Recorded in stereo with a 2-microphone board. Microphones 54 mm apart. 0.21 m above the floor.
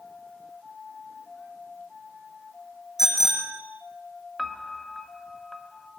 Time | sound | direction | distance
3.0 | a bicycle bell | 5° right (ahead or behind) | 8 m
4.4 | a piano | 5° left (ahead or behind) | 0.6 m